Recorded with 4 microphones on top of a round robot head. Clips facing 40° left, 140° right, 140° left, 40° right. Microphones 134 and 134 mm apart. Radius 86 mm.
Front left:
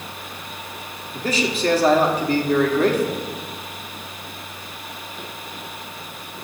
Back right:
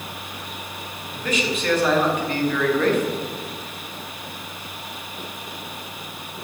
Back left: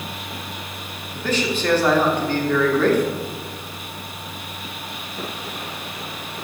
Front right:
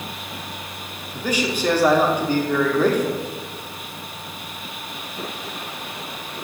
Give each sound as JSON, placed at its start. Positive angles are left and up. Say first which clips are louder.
{"t": 1.1, "sound": "a man speaking", "louder": "front left 2 dB, back left 1 dB", "azimuth_deg": 25, "distance_m": 1.3}